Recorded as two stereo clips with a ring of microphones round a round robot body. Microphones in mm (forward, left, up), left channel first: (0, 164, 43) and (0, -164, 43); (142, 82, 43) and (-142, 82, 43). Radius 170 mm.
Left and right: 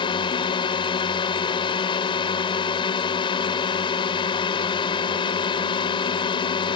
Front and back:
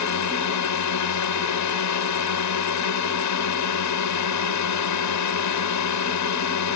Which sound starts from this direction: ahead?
A drone, at 0.0 s.